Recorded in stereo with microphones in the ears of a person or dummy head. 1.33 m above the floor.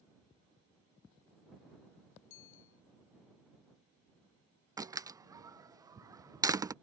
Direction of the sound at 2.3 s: 70° left (ahead or behind).